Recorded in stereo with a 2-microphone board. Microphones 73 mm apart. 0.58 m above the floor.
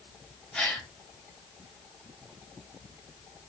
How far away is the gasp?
About 1.7 m.